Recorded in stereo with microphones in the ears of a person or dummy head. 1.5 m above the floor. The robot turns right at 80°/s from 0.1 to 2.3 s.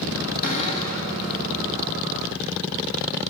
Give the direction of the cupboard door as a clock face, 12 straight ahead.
8 o'clock.